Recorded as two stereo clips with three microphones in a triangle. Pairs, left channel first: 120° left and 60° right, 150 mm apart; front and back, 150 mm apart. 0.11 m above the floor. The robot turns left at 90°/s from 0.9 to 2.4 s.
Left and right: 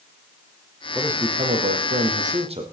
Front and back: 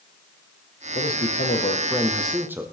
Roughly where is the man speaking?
Ahead left.